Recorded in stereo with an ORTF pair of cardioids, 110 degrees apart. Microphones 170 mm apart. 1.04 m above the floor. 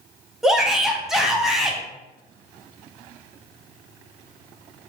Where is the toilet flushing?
I don't hear a toilet flushing.